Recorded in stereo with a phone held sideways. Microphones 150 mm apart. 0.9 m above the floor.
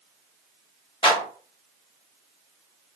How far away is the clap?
About 1.2 m.